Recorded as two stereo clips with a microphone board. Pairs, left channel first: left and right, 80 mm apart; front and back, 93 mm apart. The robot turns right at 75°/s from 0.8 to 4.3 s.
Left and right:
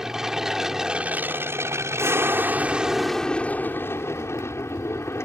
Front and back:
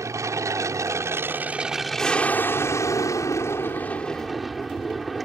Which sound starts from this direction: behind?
An aircraft, at 0.0 s.